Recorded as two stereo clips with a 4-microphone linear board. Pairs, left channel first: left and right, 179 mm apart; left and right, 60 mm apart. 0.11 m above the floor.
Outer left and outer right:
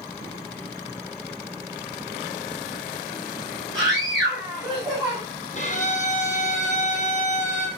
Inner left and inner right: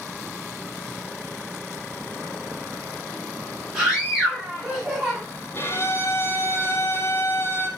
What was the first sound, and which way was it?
A scream, 20° right (ahead or behind).